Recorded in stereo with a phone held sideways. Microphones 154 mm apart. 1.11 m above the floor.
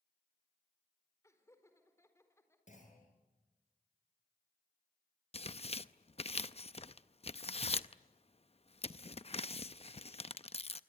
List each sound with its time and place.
1.2 s laughter: 20° left (ahead or behind), 4.5 m
2.7 s a clunk: 50° left (ahead or behind), 7 m
5.3 s tearing paper: 40° left (ahead or behind), 0.5 m